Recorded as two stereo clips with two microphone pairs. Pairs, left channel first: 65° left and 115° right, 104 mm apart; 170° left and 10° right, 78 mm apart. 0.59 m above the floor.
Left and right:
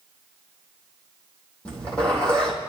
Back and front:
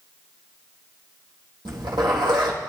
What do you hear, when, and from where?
1.6 s a zipper: 15° right, 4 m